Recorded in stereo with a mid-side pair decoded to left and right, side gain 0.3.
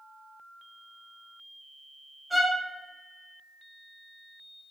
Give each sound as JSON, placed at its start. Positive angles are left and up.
{"t": 2.3, "sound": "a violin", "azimuth_deg": -10, "distance_m": 1.2}